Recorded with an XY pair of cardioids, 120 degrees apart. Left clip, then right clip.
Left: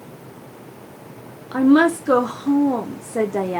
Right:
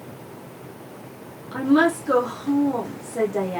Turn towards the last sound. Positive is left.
turn(degrees=40)